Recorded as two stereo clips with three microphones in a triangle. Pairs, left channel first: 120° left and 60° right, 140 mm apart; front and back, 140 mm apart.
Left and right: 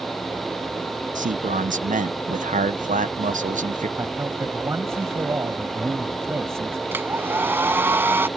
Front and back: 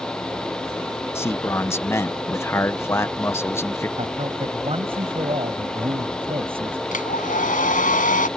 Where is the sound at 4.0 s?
130° right.